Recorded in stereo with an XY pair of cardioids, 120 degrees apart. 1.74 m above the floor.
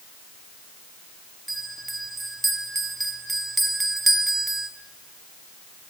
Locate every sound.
1.5 s a bell: 15° right, 1.4 m